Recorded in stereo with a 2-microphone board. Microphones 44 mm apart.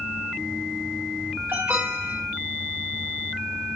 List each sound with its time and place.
1.5 s an alarm: 65° right (ahead or behind), 3.5 m